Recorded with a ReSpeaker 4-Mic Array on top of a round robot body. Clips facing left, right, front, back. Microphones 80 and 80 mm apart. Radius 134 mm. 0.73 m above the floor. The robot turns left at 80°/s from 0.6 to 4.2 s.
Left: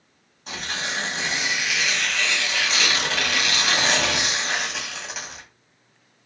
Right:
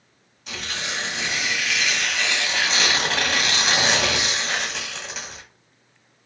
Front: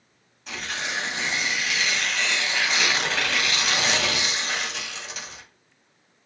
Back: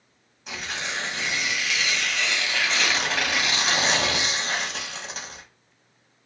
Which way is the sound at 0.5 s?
105° left.